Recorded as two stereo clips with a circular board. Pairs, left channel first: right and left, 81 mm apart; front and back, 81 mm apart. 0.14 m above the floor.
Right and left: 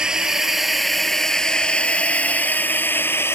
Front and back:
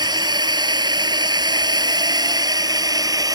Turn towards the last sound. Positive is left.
turn(degrees=-150)